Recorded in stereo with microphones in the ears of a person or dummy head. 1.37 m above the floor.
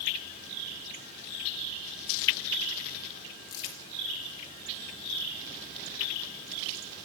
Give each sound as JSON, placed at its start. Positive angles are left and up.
{"t": 3.5, "sound": "crumpling", "side_deg": 25, "distance_m": 2.5}